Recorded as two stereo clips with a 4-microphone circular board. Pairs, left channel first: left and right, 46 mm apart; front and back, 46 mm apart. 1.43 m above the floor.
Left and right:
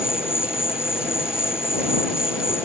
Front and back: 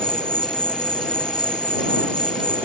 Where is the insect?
70° left.